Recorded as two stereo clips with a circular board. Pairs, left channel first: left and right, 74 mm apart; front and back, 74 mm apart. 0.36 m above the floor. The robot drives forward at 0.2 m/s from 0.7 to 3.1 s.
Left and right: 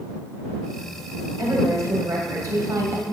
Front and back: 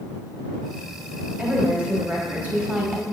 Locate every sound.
1.4 s a woman speaking: 115° right, 2 m; by 3.0 s 125° right, 2 m